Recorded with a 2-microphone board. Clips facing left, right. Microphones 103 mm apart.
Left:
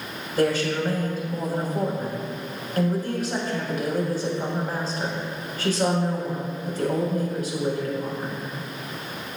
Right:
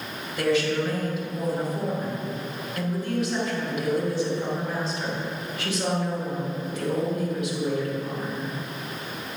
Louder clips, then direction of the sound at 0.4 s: Left 1 dB; 45° left (ahead or behind).